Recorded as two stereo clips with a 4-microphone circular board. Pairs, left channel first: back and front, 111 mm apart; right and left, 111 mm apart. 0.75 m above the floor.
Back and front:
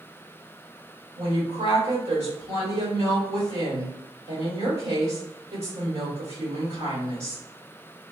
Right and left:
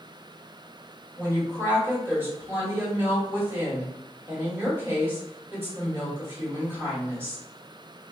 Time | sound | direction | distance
1.2 | a woman speaking | 20° left | 1.7 m